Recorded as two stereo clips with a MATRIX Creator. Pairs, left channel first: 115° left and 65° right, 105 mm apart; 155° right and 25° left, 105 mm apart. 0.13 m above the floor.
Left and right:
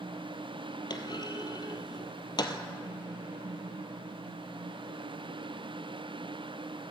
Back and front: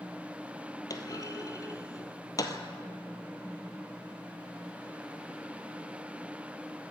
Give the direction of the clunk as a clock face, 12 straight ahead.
7 o'clock.